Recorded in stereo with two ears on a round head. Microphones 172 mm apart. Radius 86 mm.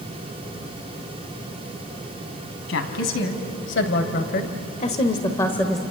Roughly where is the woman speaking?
Left.